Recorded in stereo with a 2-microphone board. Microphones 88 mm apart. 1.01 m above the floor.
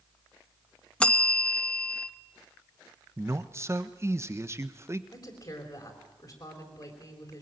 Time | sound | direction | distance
1.0 | a bell | 10° left (ahead or behind) | 0.6 m
3.2 | a man speaking | 30° right (ahead or behind) | 1.1 m
5.1 | a woman speaking | 50° left (ahead or behind) | 4 m